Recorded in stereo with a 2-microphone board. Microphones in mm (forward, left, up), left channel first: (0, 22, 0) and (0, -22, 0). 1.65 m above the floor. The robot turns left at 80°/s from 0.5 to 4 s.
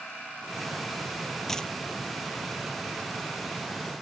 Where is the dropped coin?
5° left (ahead or behind); by 1.7 s 25° left (ahead or behind).